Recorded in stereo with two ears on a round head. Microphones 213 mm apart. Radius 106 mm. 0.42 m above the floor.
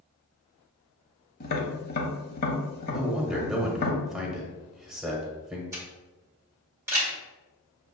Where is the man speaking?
Centre (ahead or behind), 0.9 m.